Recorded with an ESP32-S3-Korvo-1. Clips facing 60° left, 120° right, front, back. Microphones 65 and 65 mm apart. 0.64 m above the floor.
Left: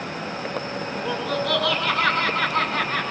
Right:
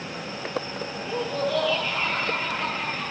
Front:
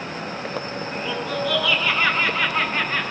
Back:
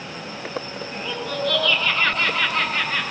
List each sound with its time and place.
0.9 s laughter: 85° left, 9.5 m